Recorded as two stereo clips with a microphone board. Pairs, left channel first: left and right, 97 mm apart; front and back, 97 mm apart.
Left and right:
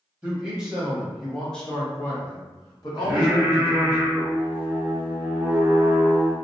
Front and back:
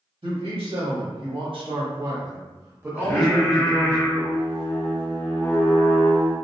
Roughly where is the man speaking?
Behind.